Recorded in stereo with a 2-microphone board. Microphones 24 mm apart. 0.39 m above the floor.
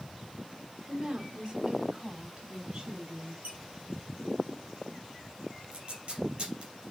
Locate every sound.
0.9 s a woman speaking: 45° right (ahead or behind), 1.8 m; by 3.3 s 35° right (ahead or behind), 4 m
3.4 s a squeak: 65° right (ahead or behind), 4 m
5.7 s tape being pulled: 50° right (ahead or behind), 3.5 m